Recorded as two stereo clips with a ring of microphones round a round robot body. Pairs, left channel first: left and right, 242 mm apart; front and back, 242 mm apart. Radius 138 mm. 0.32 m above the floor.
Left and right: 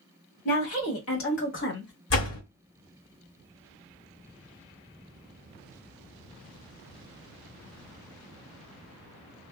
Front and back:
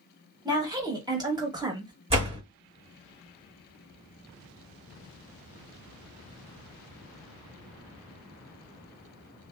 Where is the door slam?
115° left, 1.9 m.